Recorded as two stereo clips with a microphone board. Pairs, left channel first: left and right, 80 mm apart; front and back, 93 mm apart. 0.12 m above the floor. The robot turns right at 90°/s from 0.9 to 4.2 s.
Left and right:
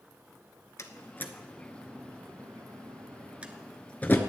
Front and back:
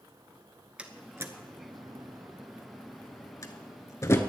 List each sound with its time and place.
0.8 s a door slam: 110° left, 1.1 m; by 4.2 s 45° left, 1.1 m